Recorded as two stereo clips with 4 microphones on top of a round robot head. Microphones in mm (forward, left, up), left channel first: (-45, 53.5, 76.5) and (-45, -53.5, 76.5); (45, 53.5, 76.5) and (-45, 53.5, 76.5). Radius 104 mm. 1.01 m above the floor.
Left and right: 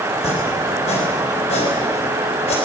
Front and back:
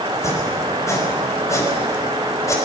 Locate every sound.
0.1 s chopping: 55° left, 5 m